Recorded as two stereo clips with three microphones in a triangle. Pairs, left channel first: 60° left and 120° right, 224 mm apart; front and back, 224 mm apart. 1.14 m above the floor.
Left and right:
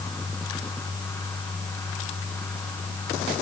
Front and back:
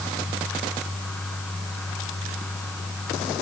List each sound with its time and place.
Only background noise.